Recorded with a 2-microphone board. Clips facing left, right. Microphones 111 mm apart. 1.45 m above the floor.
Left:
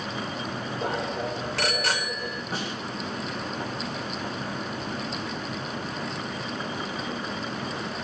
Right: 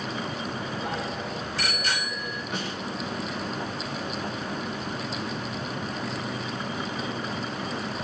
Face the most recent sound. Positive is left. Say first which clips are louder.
# even
turn(degrees=35)  # may be behind; listen again after turning